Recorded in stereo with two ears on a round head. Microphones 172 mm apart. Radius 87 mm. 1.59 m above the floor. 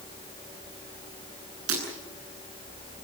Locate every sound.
1.7 s breaking glass: 85° right, 10 m